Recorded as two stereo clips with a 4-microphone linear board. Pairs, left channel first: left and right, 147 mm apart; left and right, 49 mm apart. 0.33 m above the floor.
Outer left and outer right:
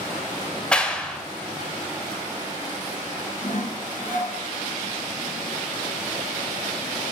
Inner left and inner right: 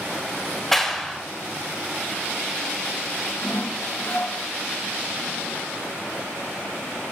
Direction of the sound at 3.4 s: 70° left (ahead or behind).